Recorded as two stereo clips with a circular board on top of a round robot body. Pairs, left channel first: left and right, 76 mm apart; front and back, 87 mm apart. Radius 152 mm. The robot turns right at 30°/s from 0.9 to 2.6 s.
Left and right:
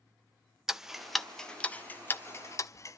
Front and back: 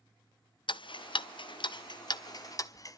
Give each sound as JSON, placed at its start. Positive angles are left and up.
{"t": 0.7, "sound": "ticking", "azimuth_deg": -5, "distance_m": 1.0}